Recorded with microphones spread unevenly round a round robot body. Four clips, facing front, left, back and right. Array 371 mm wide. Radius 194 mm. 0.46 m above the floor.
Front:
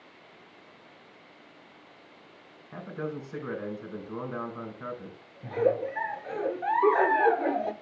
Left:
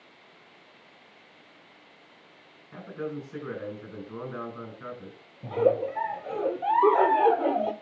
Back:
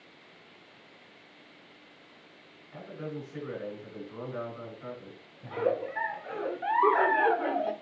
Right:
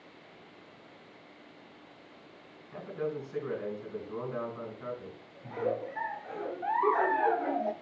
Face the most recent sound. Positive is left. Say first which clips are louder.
# left 9 dB, front 3 dB
turn(degrees=65)